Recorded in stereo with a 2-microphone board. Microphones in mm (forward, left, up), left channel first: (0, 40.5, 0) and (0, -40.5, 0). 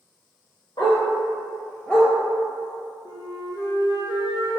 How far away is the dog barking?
About 1.1 m.